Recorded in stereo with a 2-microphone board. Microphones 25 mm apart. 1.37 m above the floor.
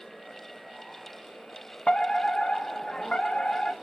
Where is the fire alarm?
45° left (ahead or behind), 1.2 m.